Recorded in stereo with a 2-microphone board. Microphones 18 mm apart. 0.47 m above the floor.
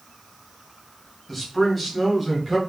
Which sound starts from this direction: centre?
A man speaking, at 1.3 s.